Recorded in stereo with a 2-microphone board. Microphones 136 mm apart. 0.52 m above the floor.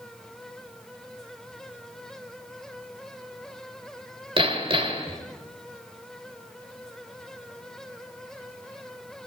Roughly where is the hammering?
Right.